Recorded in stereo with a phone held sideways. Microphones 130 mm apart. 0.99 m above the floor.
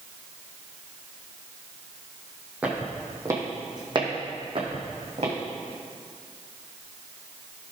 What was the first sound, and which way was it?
Footsteps, 10° right (ahead or behind).